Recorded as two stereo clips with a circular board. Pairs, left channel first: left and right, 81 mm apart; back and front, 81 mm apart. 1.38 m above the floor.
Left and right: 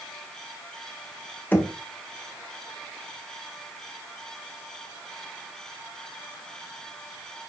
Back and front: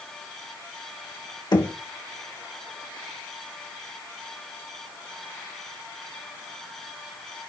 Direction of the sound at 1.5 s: 155° left.